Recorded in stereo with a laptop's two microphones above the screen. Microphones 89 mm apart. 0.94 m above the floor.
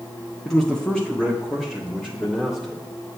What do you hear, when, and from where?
0.5 s a man speaking: 5° left (ahead or behind), 0.8 m; by 2.8 s 10° left (ahead or behind), 2 m